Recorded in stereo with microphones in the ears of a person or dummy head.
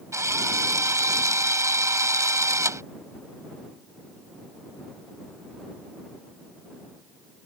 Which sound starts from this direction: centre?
A drill, at 0.1 s.